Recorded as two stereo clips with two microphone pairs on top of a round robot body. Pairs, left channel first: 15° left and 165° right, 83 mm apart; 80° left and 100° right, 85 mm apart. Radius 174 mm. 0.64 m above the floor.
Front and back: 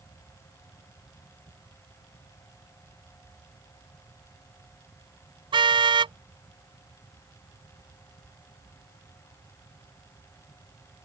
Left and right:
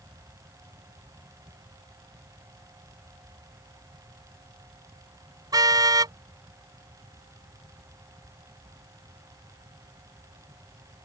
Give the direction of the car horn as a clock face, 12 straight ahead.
5 o'clock.